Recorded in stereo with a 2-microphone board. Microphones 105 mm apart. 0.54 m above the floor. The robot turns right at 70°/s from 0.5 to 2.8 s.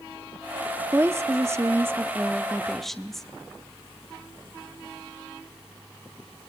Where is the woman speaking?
20° right (ahead or behind), 0.7 m; by 3.3 s 5° left (ahead or behind), 0.7 m.